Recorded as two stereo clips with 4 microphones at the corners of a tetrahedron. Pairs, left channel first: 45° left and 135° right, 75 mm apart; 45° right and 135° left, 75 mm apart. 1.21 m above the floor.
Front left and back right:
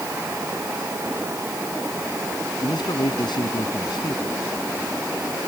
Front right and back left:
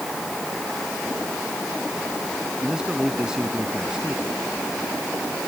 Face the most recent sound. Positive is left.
turn(degrees=55)